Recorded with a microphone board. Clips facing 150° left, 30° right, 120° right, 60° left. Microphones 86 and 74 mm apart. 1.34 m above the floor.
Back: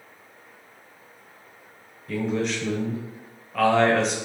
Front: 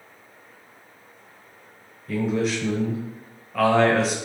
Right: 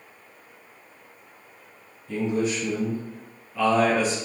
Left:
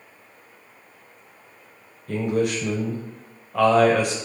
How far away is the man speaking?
About 0.9 m.